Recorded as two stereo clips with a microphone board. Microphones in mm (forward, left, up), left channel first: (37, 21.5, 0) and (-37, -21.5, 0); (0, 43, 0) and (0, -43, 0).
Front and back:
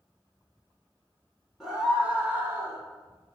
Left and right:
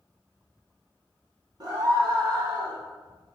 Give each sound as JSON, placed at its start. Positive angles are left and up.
{"t": 1.6, "sound": "a scream", "azimuth_deg": -65, "distance_m": 1.5}